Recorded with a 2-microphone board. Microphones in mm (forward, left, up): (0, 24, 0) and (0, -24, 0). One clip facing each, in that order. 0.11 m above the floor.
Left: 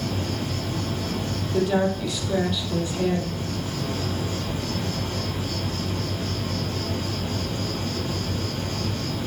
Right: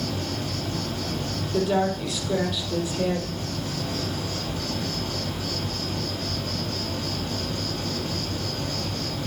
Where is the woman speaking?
5° right (ahead or behind), 4 m.